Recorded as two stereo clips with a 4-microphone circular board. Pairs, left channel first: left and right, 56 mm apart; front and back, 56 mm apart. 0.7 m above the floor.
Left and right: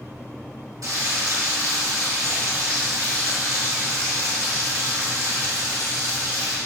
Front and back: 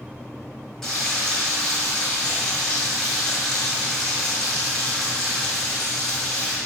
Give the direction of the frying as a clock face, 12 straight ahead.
3 o'clock.